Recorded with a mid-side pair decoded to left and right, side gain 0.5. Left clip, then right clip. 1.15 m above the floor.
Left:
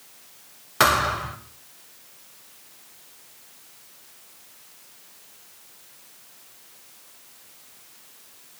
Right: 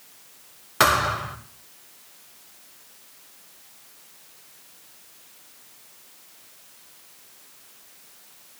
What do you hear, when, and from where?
0.8 s a thud: 5° right, 2.5 m